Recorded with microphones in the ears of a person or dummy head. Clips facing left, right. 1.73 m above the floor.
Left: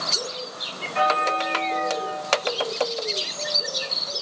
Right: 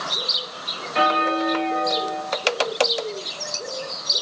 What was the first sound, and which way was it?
A bell, 50° right (ahead or behind).